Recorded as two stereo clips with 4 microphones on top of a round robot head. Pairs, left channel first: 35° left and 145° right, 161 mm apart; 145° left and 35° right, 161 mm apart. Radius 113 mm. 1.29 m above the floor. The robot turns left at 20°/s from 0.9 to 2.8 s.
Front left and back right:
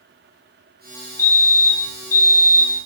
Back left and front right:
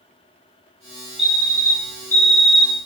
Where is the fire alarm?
50° left, 1.4 m; by 2.9 s 20° left, 1.4 m.